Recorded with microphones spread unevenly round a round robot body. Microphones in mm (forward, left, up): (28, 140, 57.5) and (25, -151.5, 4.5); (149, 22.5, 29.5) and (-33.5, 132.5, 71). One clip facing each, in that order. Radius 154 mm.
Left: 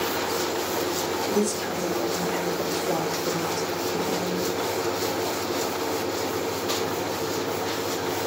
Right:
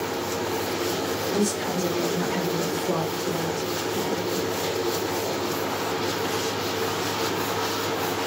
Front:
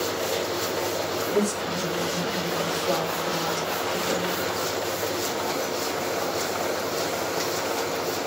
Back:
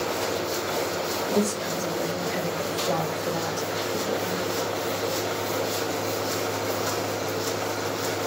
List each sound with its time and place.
1.3 s a woman speaking: 115° right, 1.8 m; by 4.5 s 50° left, 1.2 m